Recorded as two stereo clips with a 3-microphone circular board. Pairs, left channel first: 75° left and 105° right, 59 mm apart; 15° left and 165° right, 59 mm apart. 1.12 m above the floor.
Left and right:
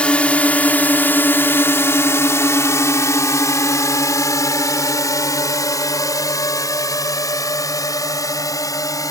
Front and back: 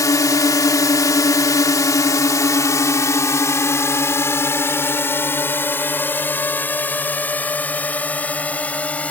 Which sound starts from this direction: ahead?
A drone, at 0.0 s.